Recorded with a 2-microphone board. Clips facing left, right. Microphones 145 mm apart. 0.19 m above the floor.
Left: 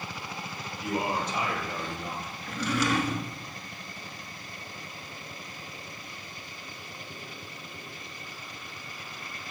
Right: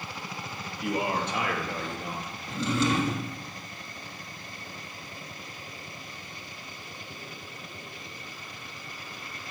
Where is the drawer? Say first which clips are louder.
Right 1 dB; 25° right (ahead or behind), 1.1 m.